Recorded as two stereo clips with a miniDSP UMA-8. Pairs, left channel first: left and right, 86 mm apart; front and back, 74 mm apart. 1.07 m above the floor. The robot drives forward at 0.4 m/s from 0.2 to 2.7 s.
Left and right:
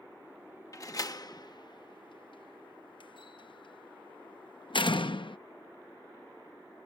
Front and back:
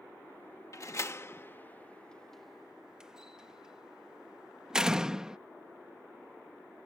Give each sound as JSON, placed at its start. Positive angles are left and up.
{"t": 0.7, "sound": "a door slam", "azimuth_deg": 40}